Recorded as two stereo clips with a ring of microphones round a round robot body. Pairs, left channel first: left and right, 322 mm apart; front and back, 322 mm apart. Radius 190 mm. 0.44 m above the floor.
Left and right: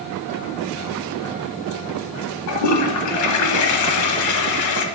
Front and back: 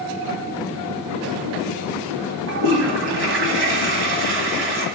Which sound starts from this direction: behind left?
A toilet flushing, at 2.5 s.